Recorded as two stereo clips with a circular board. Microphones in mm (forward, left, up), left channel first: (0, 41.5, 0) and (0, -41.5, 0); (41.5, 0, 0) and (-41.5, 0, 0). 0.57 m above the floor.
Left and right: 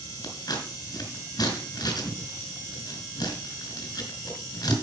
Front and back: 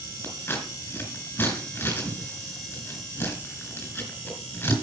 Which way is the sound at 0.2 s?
60° left.